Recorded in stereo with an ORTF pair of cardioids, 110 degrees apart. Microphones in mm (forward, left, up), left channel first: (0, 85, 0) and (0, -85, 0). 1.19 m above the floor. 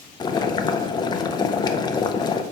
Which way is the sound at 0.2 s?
25° left.